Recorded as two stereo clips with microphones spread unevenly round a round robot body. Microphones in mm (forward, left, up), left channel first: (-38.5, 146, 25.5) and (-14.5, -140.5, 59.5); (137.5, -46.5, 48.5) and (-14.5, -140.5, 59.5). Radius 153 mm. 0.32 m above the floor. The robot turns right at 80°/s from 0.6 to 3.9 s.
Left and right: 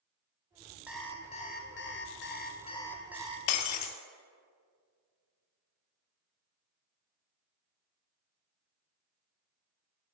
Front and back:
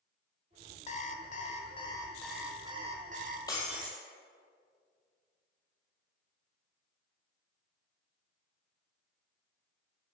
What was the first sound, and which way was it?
An alarm clock, 5° left.